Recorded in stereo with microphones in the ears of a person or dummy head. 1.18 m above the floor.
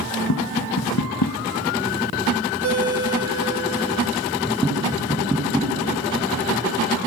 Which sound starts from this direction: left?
Tapping, at 0.3 s.